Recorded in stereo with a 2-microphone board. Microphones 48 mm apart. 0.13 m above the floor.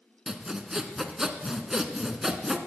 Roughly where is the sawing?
Centre.